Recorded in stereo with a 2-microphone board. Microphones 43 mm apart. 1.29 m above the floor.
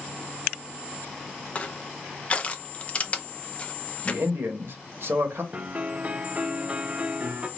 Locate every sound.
1.6 s crushing: 30° left (ahead or behind), 0.7 m
4.0 s a man speaking: 60° right (ahead or behind), 1.3 m
5.5 s a piano: 30° right (ahead or behind), 0.6 m